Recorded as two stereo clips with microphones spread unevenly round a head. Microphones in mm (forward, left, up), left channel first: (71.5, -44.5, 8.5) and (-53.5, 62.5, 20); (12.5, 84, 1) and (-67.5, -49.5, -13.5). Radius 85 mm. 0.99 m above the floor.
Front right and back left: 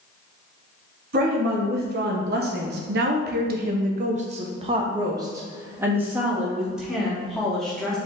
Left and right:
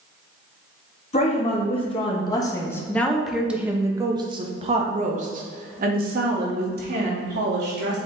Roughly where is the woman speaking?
Left.